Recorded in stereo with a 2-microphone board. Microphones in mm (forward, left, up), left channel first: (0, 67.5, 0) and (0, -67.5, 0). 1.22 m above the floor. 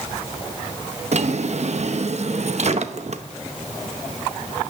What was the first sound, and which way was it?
A drawer, 55° right (ahead or behind).